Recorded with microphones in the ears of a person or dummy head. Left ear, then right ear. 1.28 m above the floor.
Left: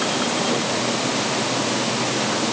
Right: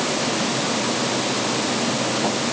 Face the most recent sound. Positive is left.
No sound to turn to.